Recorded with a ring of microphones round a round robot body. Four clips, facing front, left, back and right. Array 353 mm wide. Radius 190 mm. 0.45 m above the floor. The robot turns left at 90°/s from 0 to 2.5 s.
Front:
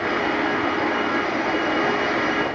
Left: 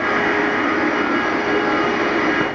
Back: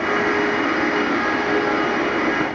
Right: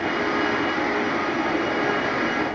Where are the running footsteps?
I don't hear running footsteps.